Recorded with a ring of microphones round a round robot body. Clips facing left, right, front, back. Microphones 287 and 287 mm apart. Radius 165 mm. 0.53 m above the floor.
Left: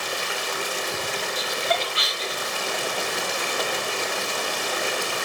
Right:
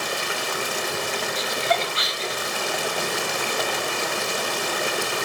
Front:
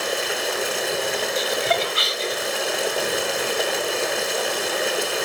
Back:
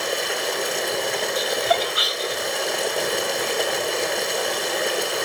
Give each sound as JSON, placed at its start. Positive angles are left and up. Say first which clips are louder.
{"t": 0.0, "sound": "running water", "louder": "right 2 dB, even", "azimuth_deg": -90, "distance_m": 1.0}
{"t": 1.4, "sound": "laughter", "louder": "right 2 dB, back 1 dB", "azimuth_deg": 55, "distance_m": 1.0}